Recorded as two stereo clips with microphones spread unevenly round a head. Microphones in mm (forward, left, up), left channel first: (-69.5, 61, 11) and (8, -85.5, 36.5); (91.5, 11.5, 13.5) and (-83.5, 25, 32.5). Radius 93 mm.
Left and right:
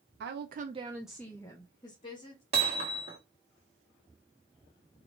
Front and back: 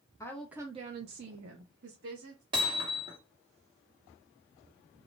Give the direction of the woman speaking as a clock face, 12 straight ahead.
3 o'clock.